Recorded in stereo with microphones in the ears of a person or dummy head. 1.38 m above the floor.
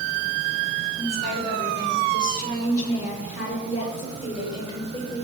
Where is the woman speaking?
55° left (ahead or behind), 5.5 m; by 5.2 s 35° left (ahead or behind), 6.5 m.